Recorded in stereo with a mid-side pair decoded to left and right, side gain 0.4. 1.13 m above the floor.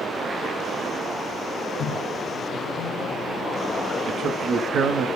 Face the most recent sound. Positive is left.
turn(degrees=-65)